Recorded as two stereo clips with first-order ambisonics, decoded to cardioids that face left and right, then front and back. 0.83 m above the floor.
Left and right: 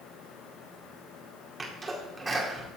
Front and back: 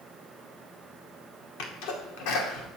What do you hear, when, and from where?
1.6 s a sneeze: 15° right, 2 m